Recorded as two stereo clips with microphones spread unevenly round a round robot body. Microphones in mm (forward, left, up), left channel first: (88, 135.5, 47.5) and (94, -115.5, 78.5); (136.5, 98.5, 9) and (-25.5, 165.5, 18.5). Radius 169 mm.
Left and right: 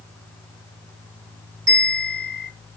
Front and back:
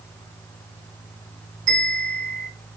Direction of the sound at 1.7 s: 125° right.